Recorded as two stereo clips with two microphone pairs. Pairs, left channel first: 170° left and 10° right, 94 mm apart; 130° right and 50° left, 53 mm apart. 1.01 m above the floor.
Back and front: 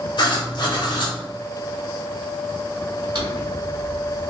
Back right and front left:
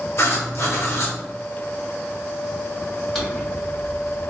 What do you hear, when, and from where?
0.2 s writing: 155° right, 1.4 m
3.1 s a drawer: 40° right, 1.9 m